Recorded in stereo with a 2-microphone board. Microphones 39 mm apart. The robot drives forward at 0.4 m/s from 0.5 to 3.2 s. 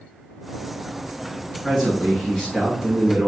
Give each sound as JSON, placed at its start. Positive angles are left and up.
{"t": 1.6, "sound": "a man speaking", "side_deg": 5, "distance_m": 1.2}